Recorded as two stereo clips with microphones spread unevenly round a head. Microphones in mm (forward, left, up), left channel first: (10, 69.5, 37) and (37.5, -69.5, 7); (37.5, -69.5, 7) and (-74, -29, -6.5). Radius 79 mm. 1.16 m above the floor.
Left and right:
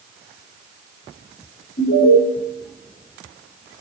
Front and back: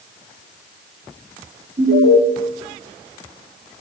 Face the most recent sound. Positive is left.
turn(degrees=125)